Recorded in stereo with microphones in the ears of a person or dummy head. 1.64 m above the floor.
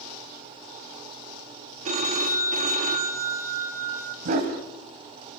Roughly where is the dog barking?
Right.